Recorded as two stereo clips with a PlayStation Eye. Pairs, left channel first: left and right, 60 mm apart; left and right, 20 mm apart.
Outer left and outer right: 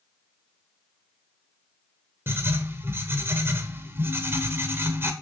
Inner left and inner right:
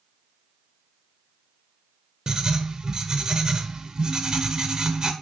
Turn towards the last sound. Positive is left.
turn(degrees=-40)  # may be behind; listen again after turning